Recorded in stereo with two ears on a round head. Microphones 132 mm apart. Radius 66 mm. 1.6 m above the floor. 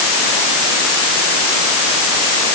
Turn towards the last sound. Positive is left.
No sound to turn to.